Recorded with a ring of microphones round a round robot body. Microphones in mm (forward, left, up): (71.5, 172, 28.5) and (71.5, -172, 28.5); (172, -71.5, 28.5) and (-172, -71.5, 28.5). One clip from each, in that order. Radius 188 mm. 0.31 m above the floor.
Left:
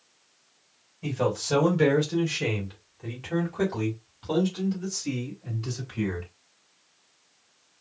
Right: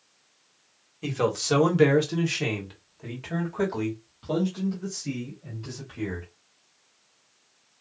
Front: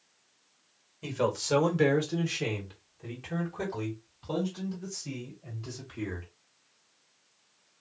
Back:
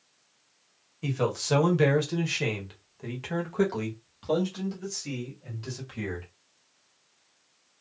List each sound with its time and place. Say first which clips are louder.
1.0 s a man speaking: right 1 dB, back 1 dB; 90° right, 1.6 m; by 6.3 s 155° left, 2.5 m